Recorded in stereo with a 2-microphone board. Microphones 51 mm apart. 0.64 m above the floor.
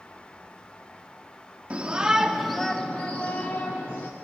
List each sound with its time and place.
1.7 s a shout: 25° right (ahead or behind), 0.9 m; by 4.1 s 55° left (ahead or behind), 1.2 m